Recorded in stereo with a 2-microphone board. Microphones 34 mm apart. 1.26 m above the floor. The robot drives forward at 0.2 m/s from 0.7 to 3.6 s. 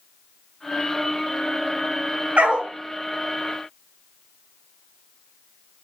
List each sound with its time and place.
2.4 s a dog barking: 40° right (ahead or behind), 0.8 m